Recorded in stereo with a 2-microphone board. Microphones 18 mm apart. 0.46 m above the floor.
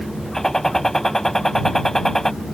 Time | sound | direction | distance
0.3 | a gunshot | 25° left (ahead or behind) | ?